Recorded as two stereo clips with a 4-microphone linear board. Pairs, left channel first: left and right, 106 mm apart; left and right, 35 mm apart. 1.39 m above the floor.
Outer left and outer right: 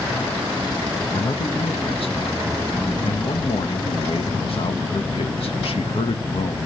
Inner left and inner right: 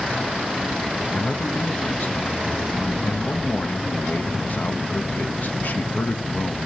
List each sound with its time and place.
1.1 s a man speaking: 60° left (ahead or behind), 1.5 m